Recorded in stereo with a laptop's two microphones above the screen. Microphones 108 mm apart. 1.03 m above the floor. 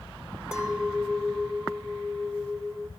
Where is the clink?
5° right (ahead or behind), 3 m.